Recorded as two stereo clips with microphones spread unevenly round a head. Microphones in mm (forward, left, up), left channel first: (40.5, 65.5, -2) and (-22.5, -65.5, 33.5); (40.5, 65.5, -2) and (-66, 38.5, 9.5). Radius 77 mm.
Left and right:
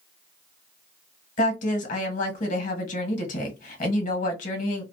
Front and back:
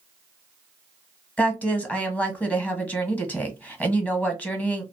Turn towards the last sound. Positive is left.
turn(degrees=90)